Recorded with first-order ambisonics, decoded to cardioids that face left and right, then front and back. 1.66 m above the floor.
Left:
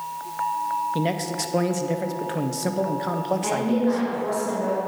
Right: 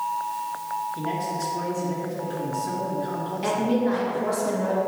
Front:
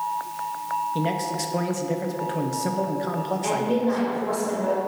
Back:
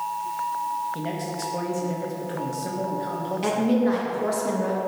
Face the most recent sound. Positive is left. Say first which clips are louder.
# right 4 dB, back 2 dB
turn(degrees=-175)